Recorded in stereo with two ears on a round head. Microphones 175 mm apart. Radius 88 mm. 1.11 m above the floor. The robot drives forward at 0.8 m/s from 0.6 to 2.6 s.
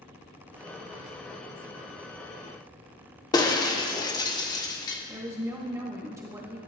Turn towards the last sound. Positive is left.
turn(degrees=-15)  # may be behind; listen again after turning